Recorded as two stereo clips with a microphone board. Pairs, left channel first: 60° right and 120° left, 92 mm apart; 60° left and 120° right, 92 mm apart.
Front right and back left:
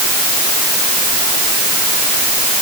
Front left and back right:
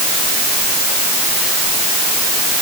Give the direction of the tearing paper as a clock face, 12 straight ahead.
No tearing paper in this recording.